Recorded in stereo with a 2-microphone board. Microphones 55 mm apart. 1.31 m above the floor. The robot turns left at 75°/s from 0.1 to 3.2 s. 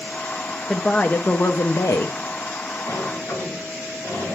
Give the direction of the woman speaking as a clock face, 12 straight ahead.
6 o'clock.